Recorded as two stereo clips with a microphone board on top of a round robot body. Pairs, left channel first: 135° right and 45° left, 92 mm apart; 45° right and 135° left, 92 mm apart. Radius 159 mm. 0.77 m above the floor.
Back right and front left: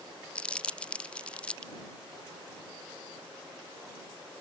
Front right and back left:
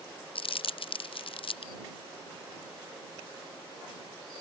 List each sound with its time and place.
0.3 s crumpling: 55° right